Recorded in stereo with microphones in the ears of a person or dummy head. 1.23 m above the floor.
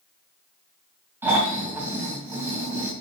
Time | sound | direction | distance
1.2 | snoring | 15° right (ahead or behind) | 2.5 m